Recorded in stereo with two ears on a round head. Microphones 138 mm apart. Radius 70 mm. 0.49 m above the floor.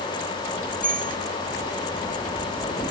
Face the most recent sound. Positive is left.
turn(degrees=10)  # may be behind; listen again after turning